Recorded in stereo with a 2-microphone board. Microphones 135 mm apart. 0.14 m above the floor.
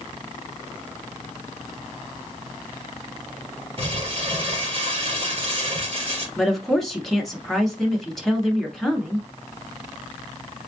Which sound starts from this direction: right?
Crumpling, at 3.8 s.